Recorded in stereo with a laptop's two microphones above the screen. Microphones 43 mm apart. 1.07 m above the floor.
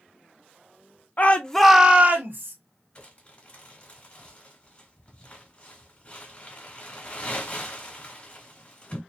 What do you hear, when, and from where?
1.2 s a shout: 40° left (ahead or behind), 0.7 m; by 2.5 s 55° right (ahead or behind), 1.0 m
3.0 s crumpling: 30° left (ahead or behind), 1.3 m